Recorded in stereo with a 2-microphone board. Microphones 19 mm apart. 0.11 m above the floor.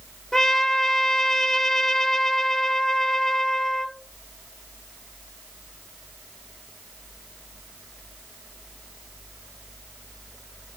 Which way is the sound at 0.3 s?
25° left (ahead or behind).